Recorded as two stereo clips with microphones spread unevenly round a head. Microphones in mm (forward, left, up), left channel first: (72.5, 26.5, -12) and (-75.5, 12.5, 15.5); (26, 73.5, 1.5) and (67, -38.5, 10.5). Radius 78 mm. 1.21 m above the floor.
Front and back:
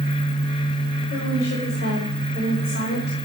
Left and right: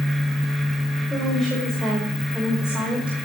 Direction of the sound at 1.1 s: 20° left.